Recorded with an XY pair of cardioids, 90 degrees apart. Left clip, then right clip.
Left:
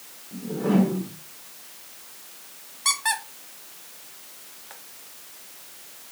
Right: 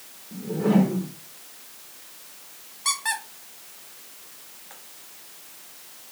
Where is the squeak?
20° left, 1.0 m.